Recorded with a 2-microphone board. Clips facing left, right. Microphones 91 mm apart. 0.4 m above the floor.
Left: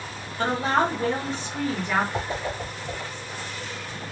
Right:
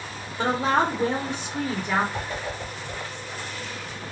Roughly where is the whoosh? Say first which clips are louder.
Left 2 dB; left.